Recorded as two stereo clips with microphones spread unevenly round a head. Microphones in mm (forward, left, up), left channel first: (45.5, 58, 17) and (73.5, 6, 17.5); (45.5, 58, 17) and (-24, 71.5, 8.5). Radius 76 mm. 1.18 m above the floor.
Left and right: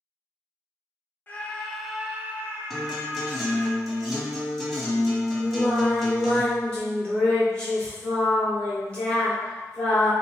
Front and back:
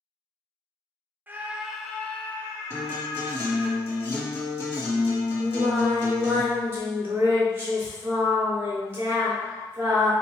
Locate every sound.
1.3 s a scream: 150° left, 0.6 m; by 3.7 s 45° right, 1.1 m
2.7 s a guitar: 30° left, 1.5 m
5.4 s singing: 160° left, 0.8 m